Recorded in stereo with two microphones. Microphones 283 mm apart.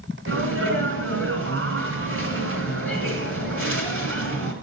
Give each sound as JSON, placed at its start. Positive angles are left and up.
{"t": 0.3, "sound": "a sneeze", "side_deg": -50, "distance_m": 2.5}